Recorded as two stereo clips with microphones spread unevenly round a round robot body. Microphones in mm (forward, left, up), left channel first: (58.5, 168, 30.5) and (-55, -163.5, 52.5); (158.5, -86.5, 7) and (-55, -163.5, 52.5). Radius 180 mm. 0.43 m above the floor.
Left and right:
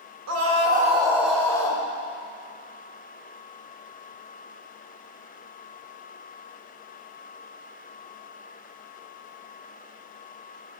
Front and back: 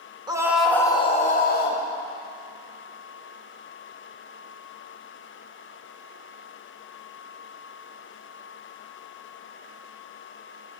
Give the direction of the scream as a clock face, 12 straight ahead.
3 o'clock.